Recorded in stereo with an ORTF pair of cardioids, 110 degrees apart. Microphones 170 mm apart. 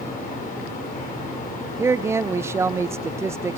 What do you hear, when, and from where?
0.0 s a fan: 55° left, 4.5 m
1.8 s a man speaking: 15° right, 0.5 m